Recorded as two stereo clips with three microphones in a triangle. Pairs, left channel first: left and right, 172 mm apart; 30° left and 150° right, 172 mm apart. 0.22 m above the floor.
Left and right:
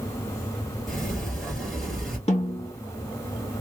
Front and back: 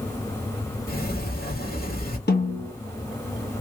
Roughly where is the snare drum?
Ahead left.